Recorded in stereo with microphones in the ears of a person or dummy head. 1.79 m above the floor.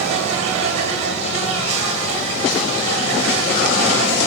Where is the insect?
40° right (ahead or behind), 1.0 m.